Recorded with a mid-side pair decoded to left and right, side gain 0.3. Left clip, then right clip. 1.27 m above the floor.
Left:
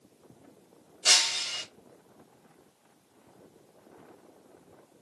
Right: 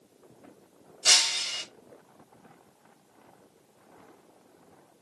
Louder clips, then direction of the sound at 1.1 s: Right 1 dB; 20° right.